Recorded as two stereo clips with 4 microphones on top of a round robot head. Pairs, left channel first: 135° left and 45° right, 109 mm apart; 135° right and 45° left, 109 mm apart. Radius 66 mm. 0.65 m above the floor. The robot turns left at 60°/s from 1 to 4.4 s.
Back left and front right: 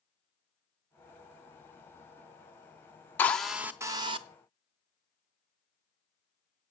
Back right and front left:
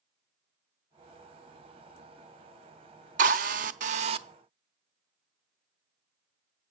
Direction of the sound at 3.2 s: 60° left.